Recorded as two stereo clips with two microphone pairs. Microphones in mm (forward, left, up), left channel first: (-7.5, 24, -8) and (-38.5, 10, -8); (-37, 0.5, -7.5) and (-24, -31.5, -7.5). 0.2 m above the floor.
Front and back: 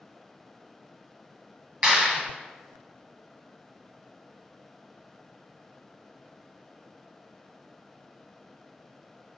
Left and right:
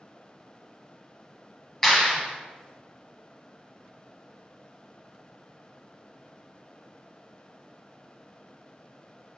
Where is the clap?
170° right, 1.3 m.